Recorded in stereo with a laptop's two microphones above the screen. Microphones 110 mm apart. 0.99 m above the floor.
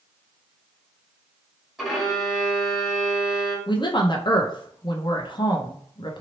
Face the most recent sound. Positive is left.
turn(degrees=45)  # may be behind; listen again after turning